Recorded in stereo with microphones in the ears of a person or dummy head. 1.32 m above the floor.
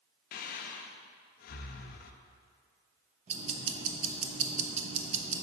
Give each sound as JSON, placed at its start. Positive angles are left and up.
{"t": 0.3, "sound": "breathing", "side_deg": 50, "distance_m": 0.7}
{"t": 3.3, "sound": "ticking", "side_deg": -45, "distance_m": 1.0}